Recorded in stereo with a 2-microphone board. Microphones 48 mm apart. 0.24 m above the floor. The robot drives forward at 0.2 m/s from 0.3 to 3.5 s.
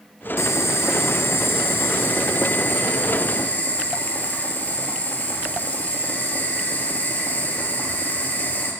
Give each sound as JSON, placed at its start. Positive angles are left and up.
{"t": 0.4, "sound": "boiling", "side_deg": 80, "distance_m": 0.5}